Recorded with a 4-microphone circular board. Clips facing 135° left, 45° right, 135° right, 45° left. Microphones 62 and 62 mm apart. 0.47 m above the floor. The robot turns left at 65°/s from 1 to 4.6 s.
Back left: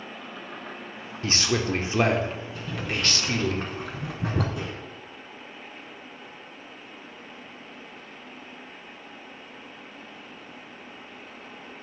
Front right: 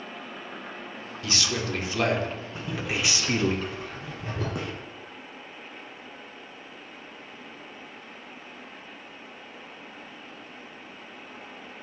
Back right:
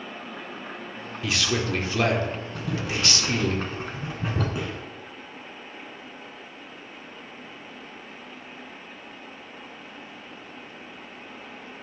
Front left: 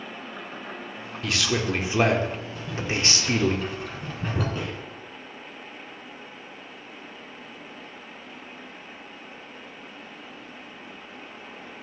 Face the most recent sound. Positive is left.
turn(degrees=-55)